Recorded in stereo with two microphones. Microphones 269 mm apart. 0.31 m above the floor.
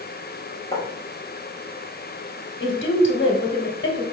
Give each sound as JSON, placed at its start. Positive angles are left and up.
{"t": 0.7, "sound": "writing", "side_deg": 15, "distance_m": 3.5}
{"t": 2.6, "sound": "a woman speaking", "side_deg": 50, "distance_m": 1.7}